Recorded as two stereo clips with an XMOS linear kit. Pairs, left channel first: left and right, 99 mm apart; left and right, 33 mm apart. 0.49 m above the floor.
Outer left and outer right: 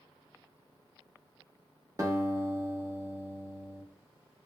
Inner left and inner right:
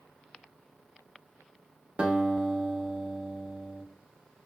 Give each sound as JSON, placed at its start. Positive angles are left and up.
{"t": 2.0, "sound": "a guitar", "side_deg": -35, "distance_m": 0.9}